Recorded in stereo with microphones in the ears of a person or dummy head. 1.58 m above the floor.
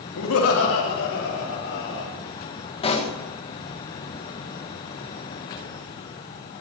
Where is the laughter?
85° left, 3 m; by 2.1 s 70° left (ahead or behind), 5 m.